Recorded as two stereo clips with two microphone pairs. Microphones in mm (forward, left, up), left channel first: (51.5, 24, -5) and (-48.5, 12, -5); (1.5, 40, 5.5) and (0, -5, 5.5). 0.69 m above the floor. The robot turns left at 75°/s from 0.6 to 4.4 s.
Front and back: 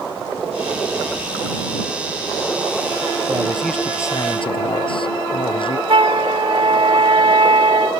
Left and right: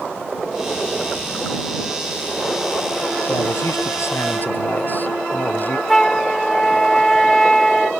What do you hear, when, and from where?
3.3 s a man speaking: 125° left; by 5.8 s 40° left
5.9 s a flute: 165° left